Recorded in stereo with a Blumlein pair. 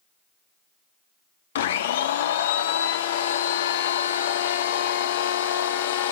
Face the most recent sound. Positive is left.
turn(degrees=60)